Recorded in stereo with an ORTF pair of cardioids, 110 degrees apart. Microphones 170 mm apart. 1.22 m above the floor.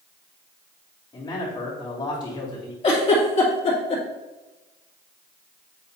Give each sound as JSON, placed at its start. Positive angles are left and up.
{"t": 1.1, "sound": "a man speaking", "azimuth_deg": 25, "distance_m": 3.5}
{"t": 2.8, "sound": "a giggle", "azimuth_deg": 35, "distance_m": 3.5}